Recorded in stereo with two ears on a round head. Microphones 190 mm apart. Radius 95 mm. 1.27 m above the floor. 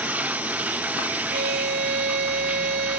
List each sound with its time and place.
0.0 s running water: 5° right (ahead or behind)
1.3 s a violin: 50° right (ahead or behind)